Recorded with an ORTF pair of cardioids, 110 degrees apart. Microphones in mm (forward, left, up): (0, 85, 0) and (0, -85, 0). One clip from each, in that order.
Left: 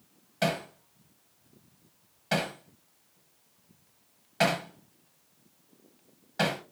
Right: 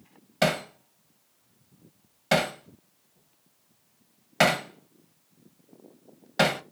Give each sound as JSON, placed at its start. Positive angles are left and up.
{"t": 0.4, "sound": "hammering", "azimuth_deg": -40, "distance_m": 0.6}